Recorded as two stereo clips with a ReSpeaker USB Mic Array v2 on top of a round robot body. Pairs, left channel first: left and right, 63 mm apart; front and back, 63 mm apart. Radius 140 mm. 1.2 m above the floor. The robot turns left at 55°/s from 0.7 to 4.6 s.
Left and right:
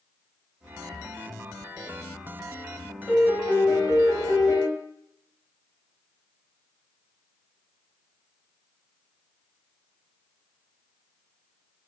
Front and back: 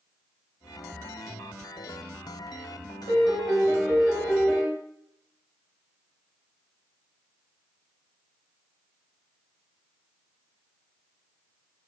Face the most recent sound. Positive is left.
turn(degrees=80)